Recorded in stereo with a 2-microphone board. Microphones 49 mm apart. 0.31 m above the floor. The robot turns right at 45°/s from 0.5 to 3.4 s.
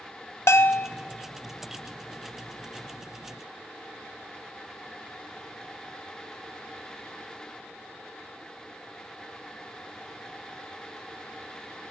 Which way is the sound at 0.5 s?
60° left (ahead or behind).